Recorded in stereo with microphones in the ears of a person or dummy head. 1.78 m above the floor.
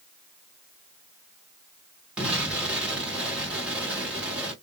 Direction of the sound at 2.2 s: 5° right (ahead or behind).